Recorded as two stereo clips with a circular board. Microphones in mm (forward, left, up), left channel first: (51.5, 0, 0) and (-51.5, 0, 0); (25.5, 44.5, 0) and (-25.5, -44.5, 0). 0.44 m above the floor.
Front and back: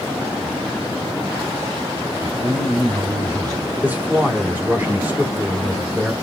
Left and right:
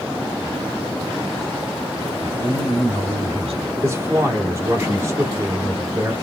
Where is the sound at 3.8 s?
125° right, 1.3 m.